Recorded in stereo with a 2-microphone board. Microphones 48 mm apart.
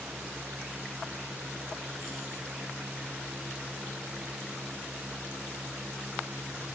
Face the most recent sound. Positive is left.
No sound to turn to.